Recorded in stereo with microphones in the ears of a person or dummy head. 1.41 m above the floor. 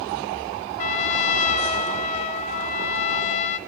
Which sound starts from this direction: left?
A trumpet, at 0.8 s.